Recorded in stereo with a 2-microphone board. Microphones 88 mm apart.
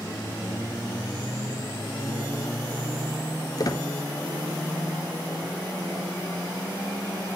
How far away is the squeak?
About 0.9 m.